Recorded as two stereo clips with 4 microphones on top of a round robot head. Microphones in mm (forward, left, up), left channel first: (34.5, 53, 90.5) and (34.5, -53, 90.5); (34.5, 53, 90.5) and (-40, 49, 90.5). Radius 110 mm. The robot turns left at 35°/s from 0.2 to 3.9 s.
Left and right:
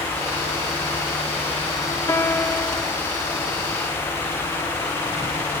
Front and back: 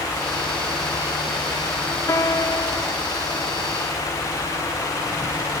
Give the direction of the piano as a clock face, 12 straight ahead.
11 o'clock.